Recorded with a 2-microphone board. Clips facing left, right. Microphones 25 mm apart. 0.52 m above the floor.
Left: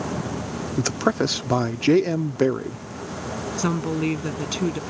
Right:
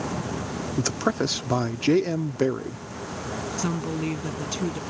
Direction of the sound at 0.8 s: 15° left (ahead or behind).